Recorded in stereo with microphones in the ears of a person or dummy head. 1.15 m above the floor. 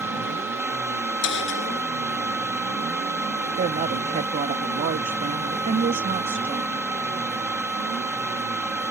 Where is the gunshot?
65° left (ahead or behind).